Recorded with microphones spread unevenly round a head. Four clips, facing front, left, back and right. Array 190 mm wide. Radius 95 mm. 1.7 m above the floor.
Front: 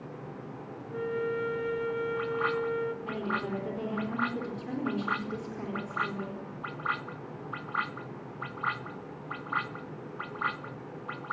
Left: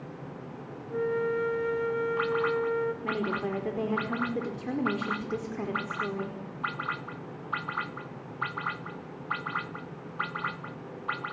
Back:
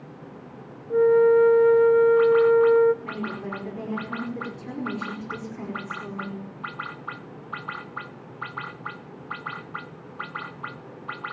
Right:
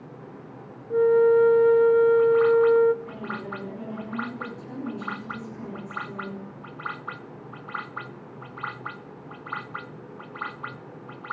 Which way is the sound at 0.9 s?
150° right.